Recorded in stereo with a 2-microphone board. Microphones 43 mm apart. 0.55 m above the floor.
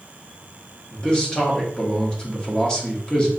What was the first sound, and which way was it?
A man speaking, 20° left (ahead or behind).